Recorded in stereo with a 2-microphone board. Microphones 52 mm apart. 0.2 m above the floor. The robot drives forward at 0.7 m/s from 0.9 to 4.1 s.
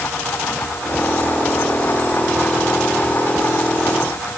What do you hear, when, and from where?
Only background noise.